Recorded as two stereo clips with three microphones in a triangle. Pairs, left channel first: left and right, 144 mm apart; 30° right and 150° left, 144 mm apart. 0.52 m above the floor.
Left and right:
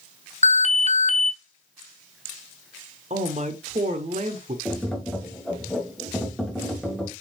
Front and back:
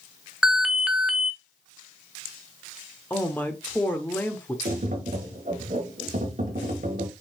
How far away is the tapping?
About 1.0 m.